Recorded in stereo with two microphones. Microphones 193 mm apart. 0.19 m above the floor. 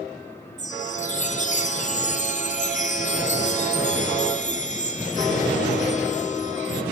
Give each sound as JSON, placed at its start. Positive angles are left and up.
{"t": 0.6, "sound": "a chime", "side_deg": 35, "distance_m": 1.8}